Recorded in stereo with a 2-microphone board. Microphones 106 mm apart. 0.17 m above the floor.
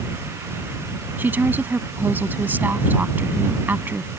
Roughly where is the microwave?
I don't hear a microwave.